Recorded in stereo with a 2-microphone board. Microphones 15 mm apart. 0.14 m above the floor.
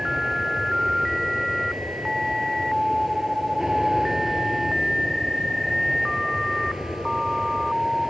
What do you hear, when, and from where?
0.0 s an aircraft: 35° right (ahead or behind)